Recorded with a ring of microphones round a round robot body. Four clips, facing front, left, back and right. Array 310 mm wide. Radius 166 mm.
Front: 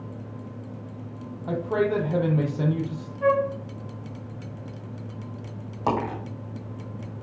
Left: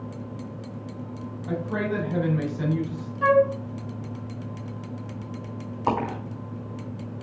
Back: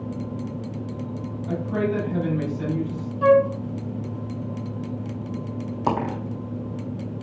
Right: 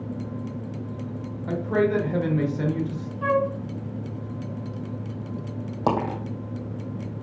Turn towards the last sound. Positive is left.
turn(degrees=-110)